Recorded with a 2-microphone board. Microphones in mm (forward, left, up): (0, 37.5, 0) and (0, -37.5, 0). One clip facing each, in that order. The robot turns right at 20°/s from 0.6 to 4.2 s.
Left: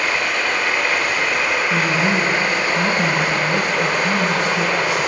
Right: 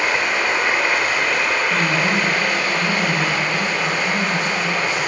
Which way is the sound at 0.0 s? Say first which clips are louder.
Right 1 dB; 20° right.